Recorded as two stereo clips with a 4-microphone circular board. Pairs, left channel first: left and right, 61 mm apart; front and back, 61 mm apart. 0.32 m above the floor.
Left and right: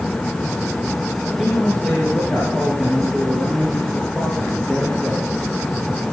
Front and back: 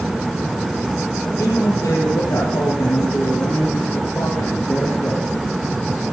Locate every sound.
1.2 s a man speaking: 20° left, 8 m